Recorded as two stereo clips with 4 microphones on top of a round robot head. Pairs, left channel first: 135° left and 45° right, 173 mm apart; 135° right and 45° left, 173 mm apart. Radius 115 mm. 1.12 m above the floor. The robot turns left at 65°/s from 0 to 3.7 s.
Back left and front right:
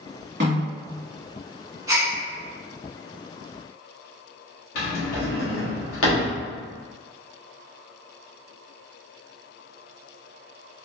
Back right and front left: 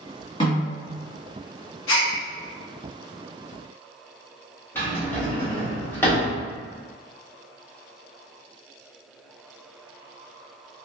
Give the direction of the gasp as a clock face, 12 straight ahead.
4 o'clock.